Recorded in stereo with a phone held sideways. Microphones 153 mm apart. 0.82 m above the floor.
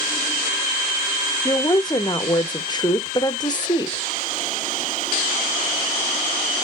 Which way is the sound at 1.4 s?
30° left (ahead or behind).